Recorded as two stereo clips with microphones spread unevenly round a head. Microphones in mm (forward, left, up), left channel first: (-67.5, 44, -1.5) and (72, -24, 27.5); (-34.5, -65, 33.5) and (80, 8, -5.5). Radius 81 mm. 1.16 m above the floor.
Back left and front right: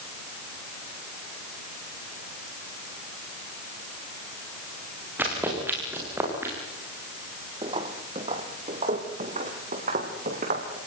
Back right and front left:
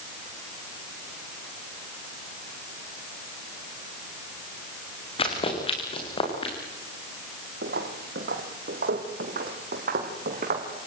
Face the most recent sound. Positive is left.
turn(degrees=10)